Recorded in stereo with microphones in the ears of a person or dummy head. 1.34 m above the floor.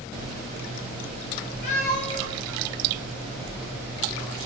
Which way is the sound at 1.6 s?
45° left (ahead or behind).